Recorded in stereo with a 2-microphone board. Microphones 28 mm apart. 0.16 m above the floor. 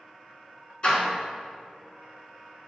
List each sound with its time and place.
0.8 s a door slam: 30° left (ahead or behind), 1.4 m